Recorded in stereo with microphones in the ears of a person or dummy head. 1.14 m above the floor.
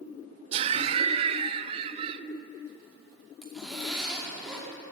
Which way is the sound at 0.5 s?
30° right (ahead or behind).